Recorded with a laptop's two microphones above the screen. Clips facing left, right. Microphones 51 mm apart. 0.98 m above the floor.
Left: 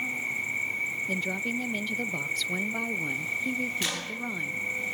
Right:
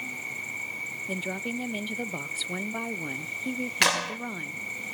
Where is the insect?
30° left (ahead or behind), 1.4 m.